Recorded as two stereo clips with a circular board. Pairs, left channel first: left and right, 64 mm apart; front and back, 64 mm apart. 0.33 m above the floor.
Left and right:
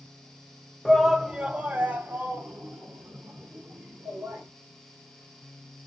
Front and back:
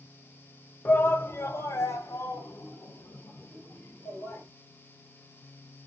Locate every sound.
0.8 s a shout: 10° left, 1.0 m; by 4.4 s 35° right, 4.5 m